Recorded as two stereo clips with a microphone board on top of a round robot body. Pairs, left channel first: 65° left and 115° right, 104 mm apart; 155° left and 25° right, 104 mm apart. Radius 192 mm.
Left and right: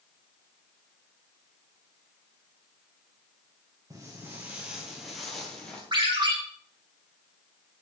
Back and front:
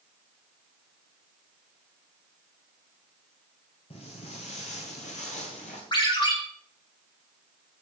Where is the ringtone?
160° right, 4 m.